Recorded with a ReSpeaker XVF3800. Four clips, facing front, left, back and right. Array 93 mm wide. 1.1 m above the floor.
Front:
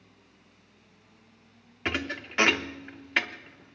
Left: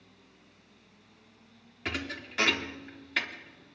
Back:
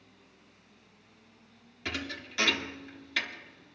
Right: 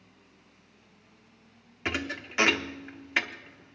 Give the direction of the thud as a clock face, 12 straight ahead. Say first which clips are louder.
Right 3 dB, front 6 dB; 1 o'clock.